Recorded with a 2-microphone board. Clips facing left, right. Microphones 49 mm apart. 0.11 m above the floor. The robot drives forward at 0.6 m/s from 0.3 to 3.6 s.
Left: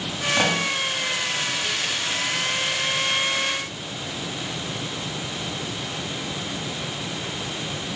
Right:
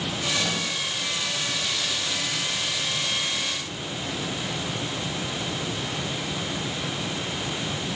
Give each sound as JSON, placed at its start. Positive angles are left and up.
{"t": 0.4, "sound": "a pop", "side_deg": 50, "distance_m": 7.5}